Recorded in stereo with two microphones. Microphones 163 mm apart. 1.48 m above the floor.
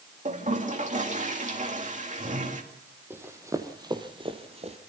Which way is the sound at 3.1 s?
15° right (ahead or behind).